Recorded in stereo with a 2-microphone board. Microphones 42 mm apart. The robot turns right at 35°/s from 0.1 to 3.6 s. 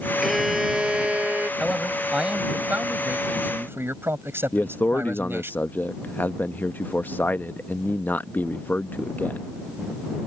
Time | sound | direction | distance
0.2 | a violin | straight behind | ?
1.6 | a man speaking | 175° right | ?
4.5 | a man speaking | 45° left (ahead or behind) | ?